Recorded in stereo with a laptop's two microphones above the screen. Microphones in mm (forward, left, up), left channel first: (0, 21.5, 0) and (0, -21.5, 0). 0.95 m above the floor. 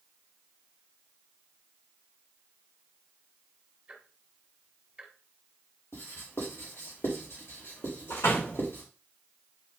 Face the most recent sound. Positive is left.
turn(degrees=85)